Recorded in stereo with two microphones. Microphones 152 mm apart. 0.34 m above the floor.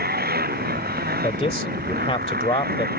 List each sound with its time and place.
0.0 s a motorcycle: 90° right
1.2 s a man speaking: 40° left (ahead or behind)